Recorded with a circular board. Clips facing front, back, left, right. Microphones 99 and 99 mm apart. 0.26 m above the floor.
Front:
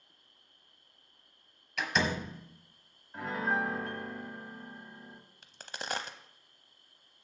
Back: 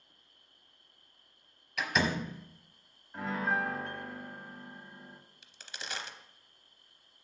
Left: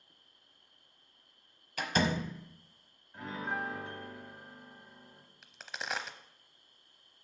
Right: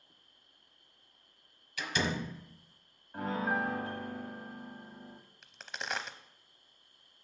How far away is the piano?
About 1.6 m.